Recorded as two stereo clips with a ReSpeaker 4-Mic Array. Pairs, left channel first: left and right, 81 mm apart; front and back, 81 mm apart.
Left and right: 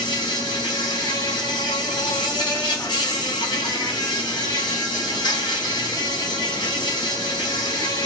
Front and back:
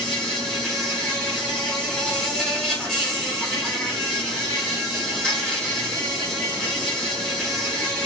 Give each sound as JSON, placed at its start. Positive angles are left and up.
{"t": 0.0, "sound": "an insect", "azimuth_deg": 80, "distance_m": 2.0}